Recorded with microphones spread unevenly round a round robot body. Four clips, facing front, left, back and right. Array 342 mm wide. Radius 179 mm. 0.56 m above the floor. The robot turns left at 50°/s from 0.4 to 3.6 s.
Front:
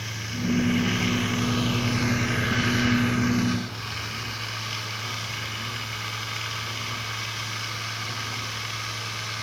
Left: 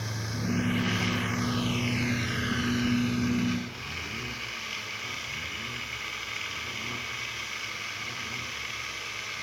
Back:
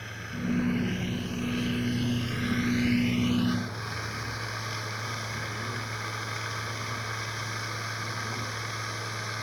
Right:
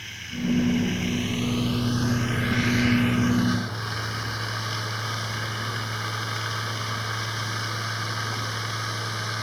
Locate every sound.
0.0 s running water: 70° left; by 9.4 s 90° right